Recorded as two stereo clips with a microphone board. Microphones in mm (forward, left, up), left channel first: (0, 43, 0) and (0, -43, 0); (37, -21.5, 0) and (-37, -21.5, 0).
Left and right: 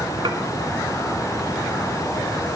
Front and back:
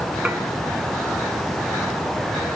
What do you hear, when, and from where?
0.2 s dishes clattering: 100° right, 2.5 m